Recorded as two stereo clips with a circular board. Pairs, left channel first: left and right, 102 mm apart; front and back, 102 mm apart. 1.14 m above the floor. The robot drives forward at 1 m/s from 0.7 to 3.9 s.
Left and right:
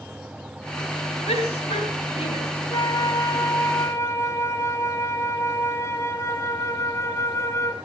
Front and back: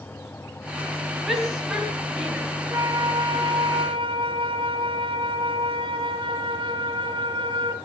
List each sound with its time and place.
1.3 s a shout: 90° left, 8 m; by 2.5 s 100° left, 8 m
2.7 s a flute: 130° left, 1.7 m; by 7.7 s 150° left, 2.5 m